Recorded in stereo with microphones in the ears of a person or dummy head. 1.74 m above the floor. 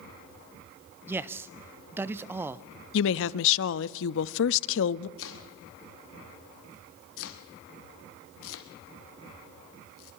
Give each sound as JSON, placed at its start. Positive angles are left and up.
{"t": 1.1, "sound": "a man speaking", "side_deg": -10, "distance_m": 0.5}
{"t": 2.9, "sound": "a woman speaking", "side_deg": 75, "distance_m": 0.5}
{"t": 5.2, "sound": "chopping", "side_deg": 80, "distance_m": 1.7}